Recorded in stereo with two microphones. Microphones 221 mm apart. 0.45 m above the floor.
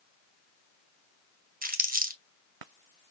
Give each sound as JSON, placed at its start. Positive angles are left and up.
{"t": 1.6, "sound": "crumpling", "side_deg": -40, "distance_m": 0.9}